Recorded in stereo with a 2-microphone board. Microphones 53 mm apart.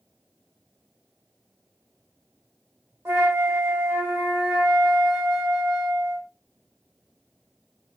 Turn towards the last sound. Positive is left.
turn(degrees=-40)  # may be behind; listen again after turning